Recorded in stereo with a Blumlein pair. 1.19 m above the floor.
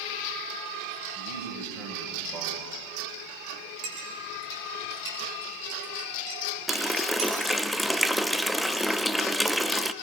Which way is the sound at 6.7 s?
Straight ahead.